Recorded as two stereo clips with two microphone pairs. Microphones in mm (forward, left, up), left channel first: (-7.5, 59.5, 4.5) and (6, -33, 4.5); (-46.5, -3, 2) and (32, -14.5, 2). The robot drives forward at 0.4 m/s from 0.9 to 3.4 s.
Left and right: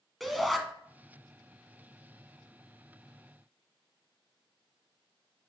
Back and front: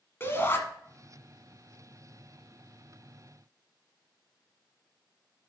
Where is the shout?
175° right, 1.4 m.